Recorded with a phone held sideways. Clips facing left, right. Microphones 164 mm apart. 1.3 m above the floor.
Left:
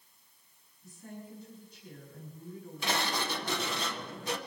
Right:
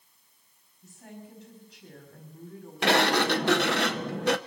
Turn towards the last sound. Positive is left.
turn(degrees=-70)  # may be behind; listen again after turning